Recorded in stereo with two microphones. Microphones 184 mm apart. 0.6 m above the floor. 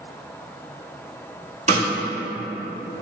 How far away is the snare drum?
About 1.7 m.